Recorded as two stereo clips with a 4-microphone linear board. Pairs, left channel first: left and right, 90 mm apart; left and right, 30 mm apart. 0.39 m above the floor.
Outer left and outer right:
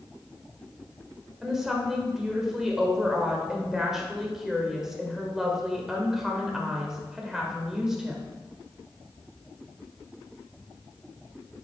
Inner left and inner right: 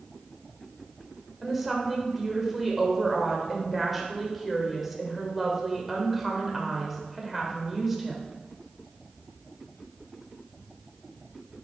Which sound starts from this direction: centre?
A woman speaking, at 1.4 s.